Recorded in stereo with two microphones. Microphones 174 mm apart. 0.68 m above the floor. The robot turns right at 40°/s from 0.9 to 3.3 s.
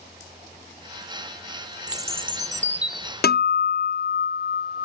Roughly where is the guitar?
Left.